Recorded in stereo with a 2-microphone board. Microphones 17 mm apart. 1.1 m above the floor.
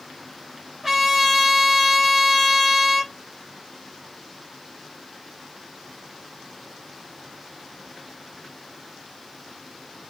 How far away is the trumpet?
About 1.3 m.